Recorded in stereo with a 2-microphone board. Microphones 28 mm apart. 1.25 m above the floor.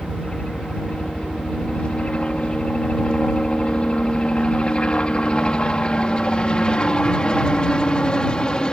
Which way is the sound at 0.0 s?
45° left (ahead or behind).